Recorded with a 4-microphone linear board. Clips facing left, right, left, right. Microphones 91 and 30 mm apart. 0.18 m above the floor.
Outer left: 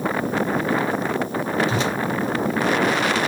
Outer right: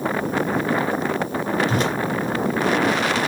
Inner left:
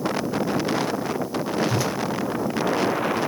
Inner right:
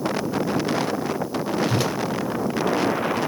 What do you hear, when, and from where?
1.7 s a whoosh: 50° right (ahead or behind), 1.2 m